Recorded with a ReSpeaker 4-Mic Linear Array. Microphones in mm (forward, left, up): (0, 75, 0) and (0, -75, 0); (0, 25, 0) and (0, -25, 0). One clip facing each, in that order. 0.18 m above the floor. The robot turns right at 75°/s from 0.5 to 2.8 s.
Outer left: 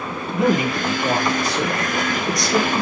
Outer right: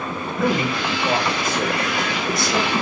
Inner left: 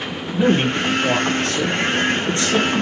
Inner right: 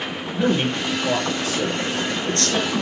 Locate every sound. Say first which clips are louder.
0.3 s a man speaking: outer left 3 dB, inner left 4 dB; 15° left, 4.5 m; by 2.8 s 170° right, 4.5 m